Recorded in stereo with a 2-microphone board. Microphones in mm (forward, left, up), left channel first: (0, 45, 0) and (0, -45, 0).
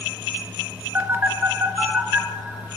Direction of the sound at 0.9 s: 25° right (ahead or behind).